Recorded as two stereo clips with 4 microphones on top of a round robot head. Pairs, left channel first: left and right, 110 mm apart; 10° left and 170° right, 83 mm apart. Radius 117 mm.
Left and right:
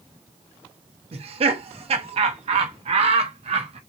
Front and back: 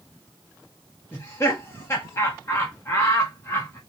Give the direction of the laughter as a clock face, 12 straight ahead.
2 o'clock.